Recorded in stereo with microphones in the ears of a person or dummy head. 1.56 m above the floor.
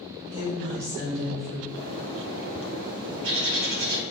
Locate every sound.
0.2 s a woman speaking: 80° right, 1.5 m; by 1.6 s 50° right (ahead or behind), 1.9 m
1.7 s a bird: 75° right (ahead or behind), 0.9 m